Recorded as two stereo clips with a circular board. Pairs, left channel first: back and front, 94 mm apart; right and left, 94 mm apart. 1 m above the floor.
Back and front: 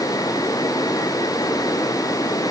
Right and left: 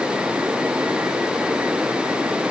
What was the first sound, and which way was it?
Only background noise.